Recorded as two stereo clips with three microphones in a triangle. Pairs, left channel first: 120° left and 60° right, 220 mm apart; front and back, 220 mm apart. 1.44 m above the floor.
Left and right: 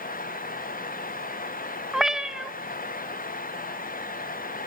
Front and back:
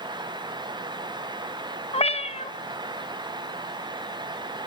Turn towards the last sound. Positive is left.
turn(degrees=25)